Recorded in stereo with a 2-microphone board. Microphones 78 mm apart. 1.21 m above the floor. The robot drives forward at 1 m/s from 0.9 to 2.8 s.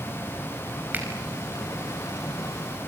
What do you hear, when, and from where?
0.9 s a finger snap: 25° right (ahead or behind), 5 m